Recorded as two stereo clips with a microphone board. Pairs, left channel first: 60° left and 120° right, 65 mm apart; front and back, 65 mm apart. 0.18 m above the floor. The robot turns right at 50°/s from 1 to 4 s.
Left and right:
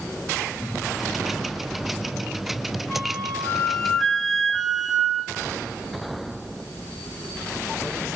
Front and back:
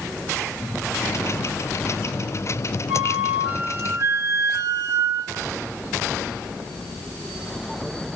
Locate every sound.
2.9 s a flute: 90° left, 0.6 m; by 5.5 s 150° left, 0.6 m